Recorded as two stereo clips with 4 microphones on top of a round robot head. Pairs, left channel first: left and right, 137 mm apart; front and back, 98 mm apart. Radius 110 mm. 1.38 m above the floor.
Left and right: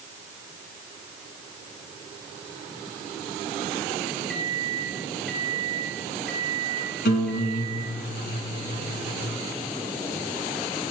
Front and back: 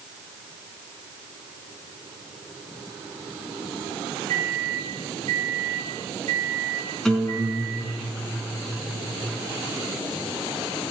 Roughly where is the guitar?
Left.